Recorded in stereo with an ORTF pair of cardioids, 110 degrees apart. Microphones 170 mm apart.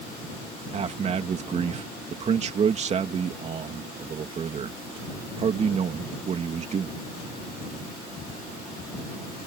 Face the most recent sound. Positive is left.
turn(degrees=-40)